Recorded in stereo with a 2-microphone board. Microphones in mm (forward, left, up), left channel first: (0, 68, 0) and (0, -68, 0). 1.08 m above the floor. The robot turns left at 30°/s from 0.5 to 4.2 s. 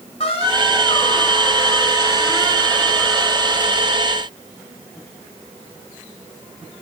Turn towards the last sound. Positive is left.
turn(degrees=-30)